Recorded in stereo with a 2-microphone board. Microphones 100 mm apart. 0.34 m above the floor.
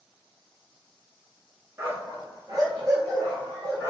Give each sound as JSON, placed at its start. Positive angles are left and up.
{"t": 1.8, "sound": "a dog barking", "side_deg": -25, "distance_m": 1.2}